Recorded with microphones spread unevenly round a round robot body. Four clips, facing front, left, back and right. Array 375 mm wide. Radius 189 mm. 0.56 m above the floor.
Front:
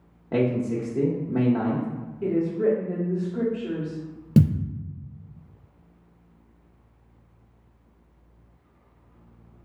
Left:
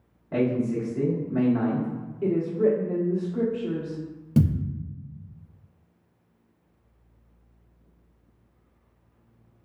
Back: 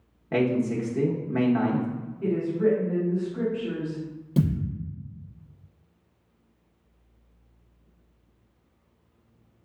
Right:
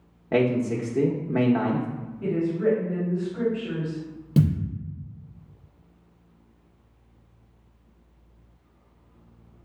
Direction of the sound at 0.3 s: 75° right.